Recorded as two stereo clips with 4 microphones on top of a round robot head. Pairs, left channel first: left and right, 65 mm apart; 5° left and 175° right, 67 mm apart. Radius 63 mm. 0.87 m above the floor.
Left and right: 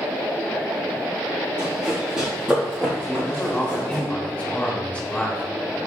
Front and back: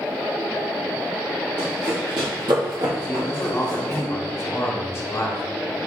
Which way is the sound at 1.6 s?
160° right.